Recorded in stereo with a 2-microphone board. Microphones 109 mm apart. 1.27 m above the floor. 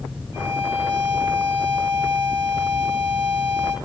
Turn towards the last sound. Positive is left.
turn(degrees=-45)  # may be behind; listen again after turning